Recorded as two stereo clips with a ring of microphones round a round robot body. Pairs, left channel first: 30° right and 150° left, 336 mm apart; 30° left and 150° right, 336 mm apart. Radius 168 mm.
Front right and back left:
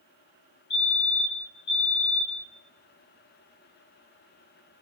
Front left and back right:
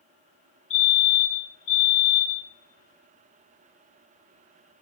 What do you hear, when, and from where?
0.7 s a fire alarm: 5° left, 3.5 m